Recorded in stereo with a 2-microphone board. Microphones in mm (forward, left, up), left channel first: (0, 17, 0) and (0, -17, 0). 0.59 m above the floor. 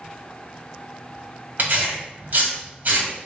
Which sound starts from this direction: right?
Tearing paper, at 1.6 s.